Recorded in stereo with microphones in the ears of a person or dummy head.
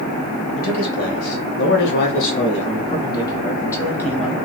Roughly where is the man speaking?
Left.